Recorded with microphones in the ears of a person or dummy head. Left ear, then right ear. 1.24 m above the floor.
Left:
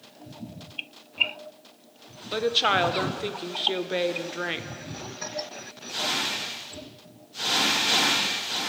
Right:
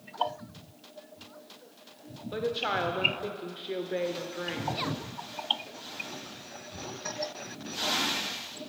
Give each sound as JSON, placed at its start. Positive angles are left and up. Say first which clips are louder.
{"t": 2.3, "sound": "a woman speaking", "louder": "left 8 dB", "side_deg": 35, "distance_m": 0.5}